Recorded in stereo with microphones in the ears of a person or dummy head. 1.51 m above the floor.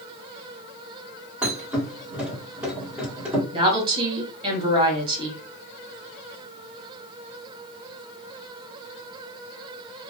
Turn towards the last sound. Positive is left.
turn(degrees=-30)  # may be behind; listen again after turning